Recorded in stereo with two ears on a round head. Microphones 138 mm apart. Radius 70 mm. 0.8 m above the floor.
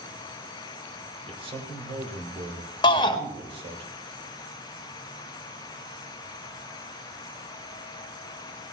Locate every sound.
1.3 s a man speaking: 40° right (ahead or behind), 3 m
2.8 s a shout: 30° left (ahead or behind), 1.5 m